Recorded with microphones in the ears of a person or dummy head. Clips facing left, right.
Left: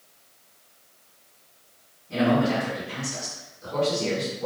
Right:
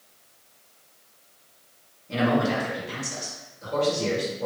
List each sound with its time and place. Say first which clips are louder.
2.1 s a man speaking: left 1 dB; 65° right (ahead or behind), 1.5 m